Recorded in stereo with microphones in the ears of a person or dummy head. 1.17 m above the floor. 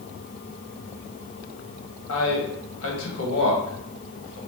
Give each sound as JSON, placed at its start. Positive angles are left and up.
{"t": 2.1, "sound": "a man speaking", "side_deg": 70, "distance_m": 1.3}